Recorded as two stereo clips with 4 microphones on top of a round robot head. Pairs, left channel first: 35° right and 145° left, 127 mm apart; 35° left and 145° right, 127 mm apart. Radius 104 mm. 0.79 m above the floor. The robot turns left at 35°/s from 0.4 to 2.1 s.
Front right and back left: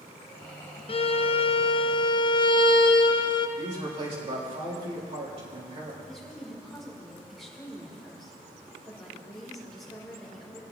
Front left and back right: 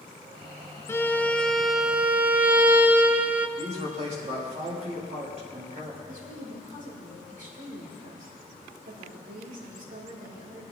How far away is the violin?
About 0.7 m.